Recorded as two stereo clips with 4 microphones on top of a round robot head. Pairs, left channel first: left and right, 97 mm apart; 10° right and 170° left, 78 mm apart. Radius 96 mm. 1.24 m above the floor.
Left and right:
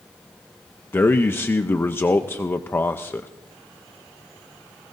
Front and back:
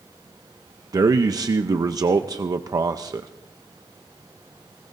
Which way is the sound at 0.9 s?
150° left.